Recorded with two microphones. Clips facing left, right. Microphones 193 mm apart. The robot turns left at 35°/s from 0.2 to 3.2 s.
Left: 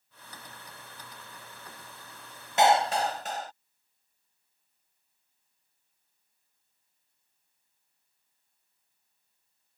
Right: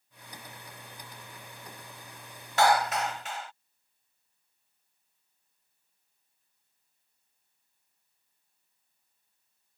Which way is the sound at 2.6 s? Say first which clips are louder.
Left 2 dB; 20° left (ahead or behind).